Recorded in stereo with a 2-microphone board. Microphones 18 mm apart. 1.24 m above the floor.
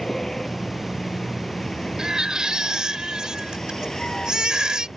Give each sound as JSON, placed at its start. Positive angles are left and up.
{"t": 0.0, "sound": "a vehicle", "side_deg": 25}
{"t": 2.0, "sound": "a baby crying", "side_deg": -45}